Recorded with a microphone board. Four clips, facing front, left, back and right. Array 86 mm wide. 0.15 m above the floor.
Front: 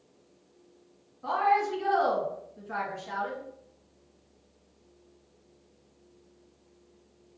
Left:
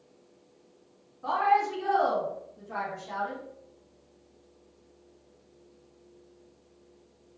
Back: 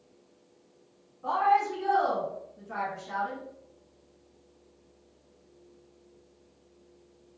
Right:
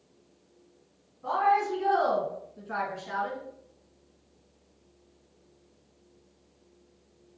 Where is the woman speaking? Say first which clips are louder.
Even, back 1 dB; 65° left, 1.1 m; by 3.4 s 75° right, 1.7 m.